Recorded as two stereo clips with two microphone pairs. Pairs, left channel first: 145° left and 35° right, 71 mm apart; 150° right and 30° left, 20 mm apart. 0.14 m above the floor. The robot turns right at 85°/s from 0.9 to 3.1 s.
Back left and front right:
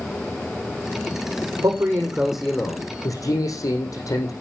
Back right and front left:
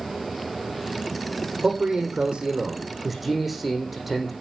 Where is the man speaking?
5° right, 7 m; by 4.3 s 120° left, 7 m.